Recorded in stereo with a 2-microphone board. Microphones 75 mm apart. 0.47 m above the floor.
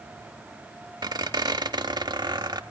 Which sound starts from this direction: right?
A squeak, at 1.0 s.